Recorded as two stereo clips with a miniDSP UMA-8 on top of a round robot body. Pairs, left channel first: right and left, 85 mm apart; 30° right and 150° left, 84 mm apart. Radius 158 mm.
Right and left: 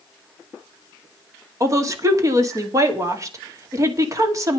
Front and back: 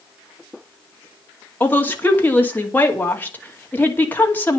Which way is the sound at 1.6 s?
40° left.